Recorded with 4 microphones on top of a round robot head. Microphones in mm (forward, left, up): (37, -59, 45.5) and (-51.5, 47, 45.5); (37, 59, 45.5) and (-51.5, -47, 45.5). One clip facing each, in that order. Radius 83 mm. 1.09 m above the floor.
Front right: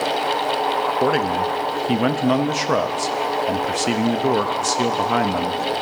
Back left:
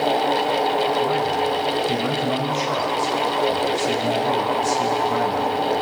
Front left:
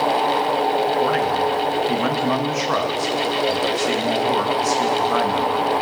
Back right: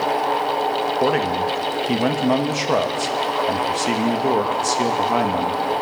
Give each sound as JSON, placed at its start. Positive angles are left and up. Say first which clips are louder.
{"t": 1.0, "sound": "a man speaking", "louder": "front right 1 dB, even", "azimuth_deg": -70, "distance_m": 1.1}